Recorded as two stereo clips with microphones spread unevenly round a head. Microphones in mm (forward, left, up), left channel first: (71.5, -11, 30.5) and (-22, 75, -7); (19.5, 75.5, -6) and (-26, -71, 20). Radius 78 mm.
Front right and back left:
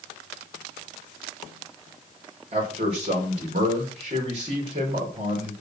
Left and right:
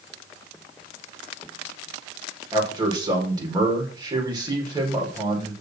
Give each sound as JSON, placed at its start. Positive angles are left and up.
{"t": 2.5, "sound": "a man speaking", "azimuth_deg": -175, "distance_m": 5.0}